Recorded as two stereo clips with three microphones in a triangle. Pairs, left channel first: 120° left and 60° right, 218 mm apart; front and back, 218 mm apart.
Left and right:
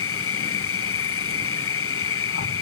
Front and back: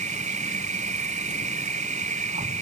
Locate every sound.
0.0 s an insect: 125° left, 0.9 m